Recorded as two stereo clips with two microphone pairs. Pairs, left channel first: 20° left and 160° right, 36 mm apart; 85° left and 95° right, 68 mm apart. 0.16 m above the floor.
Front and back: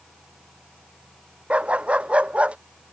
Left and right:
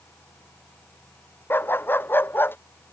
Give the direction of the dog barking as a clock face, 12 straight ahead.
7 o'clock.